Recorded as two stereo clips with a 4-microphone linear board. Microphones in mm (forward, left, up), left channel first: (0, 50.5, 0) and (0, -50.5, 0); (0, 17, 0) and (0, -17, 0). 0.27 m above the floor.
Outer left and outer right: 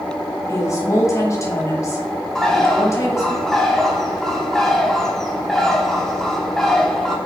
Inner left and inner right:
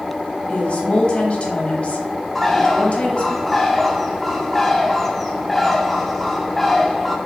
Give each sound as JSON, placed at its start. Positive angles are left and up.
{"t": 0.5, "sound": "a woman speaking", "side_deg": 35, "distance_m": 1.1}
{"t": 2.4, "sound": "a bird", "side_deg": 5, "distance_m": 0.7}